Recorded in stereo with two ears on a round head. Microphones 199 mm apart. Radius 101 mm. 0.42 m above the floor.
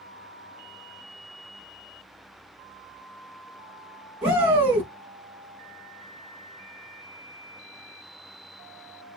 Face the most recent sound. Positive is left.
turn(degrees=-5)  # may be behind; listen again after turning